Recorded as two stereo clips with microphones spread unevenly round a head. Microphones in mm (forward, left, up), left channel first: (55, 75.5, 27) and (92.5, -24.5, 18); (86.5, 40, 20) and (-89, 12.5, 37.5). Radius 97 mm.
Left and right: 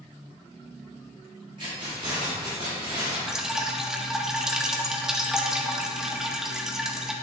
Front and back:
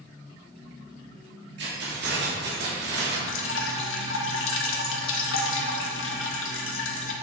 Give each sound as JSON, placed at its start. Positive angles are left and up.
{"t": 1.6, "sound": "keys jangling", "azimuth_deg": -135, "distance_m": 2.0}
{"t": 3.3, "sound": "dripping", "azimuth_deg": 15, "distance_m": 1.2}